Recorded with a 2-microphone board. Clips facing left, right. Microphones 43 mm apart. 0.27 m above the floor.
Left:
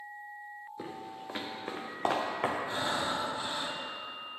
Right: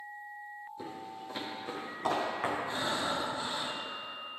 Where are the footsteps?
35° left (ahead or behind), 2.5 m; by 2.6 s 55° left (ahead or behind), 2.5 m.